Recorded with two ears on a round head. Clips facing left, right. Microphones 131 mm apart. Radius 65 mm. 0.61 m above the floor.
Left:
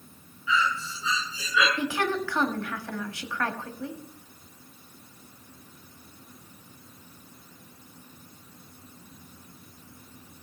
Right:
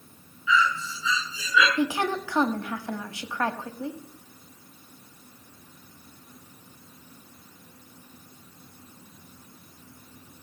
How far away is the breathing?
About 5.5 m.